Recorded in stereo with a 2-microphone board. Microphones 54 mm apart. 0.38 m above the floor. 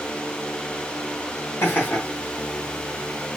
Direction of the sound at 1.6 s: 50° left (ahead or behind).